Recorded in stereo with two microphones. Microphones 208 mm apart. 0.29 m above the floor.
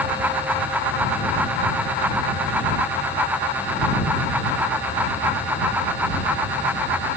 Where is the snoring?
No snoring in this recording.